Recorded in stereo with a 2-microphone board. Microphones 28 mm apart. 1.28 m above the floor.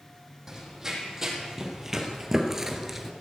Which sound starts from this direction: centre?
Running footsteps, at 0.5 s.